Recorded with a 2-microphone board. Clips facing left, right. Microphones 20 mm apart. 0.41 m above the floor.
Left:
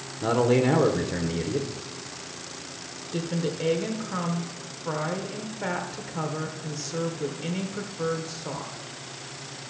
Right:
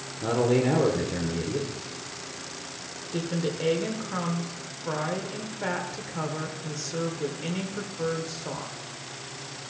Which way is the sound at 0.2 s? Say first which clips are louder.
Left 2 dB; 20° left (ahead or behind).